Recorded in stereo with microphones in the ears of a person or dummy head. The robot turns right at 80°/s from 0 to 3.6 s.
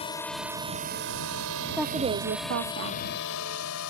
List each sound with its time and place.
0.0 s a drone: 35° left (ahead or behind); by 3.9 s 80° left
1.8 s a woman speaking: 175° right; by 3.0 s 75° right